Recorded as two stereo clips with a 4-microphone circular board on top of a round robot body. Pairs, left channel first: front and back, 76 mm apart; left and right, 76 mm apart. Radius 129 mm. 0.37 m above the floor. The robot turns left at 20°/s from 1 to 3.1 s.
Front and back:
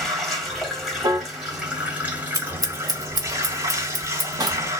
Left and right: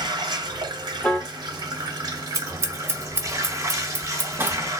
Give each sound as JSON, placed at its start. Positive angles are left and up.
{"t": 0.0, "sound": "running water", "azimuth_deg": -90, "distance_m": 1.4}
{"t": 1.0, "sound": "a piano", "azimuth_deg": 170, "distance_m": 1.0}
{"t": 2.3, "sound": "scissors", "azimuth_deg": -135, "distance_m": 1.3}